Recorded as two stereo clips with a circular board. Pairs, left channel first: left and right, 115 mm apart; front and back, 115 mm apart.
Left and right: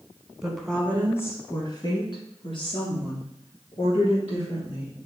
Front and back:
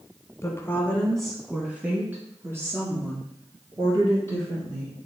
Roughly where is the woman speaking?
Ahead.